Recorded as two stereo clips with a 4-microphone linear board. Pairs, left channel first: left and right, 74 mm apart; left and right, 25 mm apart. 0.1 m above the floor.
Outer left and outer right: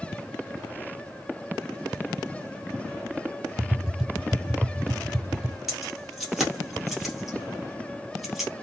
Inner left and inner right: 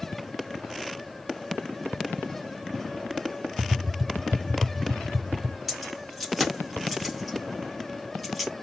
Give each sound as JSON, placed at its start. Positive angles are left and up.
{"t": 3.6, "sound": "tapping", "side_deg": -10, "distance_m": 0.8}
{"t": 5.7, "sound": "keys jangling", "side_deg": -5, "distance_m": 1.8}